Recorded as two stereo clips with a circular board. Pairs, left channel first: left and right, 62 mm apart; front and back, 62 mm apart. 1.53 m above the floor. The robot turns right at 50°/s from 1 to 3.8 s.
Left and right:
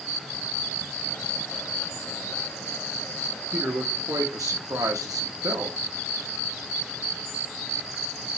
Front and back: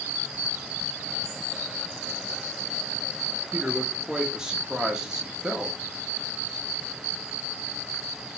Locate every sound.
3.5 s a man speaking: 120° right, 0.8 m; by 5.8 s 105° right, 0.8 m